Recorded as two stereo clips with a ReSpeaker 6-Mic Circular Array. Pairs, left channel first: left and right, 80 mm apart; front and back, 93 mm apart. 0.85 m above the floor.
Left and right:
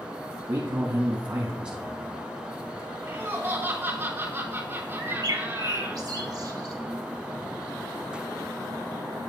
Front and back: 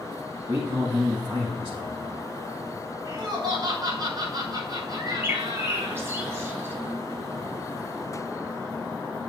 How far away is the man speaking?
About 1.4 m.